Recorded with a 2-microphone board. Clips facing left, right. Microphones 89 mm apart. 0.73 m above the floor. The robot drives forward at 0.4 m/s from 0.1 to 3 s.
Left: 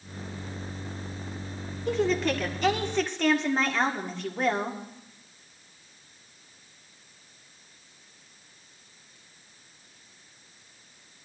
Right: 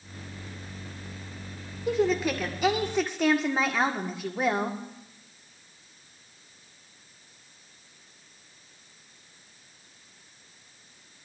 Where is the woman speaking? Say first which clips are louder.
Right 1 dB; 5° right (ahead or behind), 1.8 m; by 4.8 s 10° right (ahead or behind), 1.4 m.